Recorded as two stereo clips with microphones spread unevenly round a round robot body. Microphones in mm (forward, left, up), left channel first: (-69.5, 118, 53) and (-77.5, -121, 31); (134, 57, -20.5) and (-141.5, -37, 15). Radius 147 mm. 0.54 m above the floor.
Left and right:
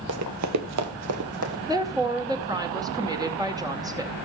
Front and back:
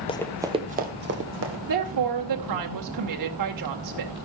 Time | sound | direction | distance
0.1 | running footsteps | 55° right | 0.8 m
1.7 | a woman speaking | 160° right | 2 m